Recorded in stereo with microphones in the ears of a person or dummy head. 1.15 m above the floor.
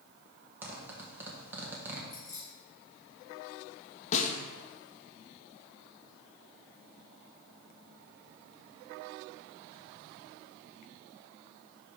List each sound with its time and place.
0.6 s a zipper: 5° right (ahead or behind), 1.2 m
2.1 s keys jangling: 15° left (ahead or behind), 3 m
4.1 s a snare drum: 45° left (ahead or behind), 0.7 m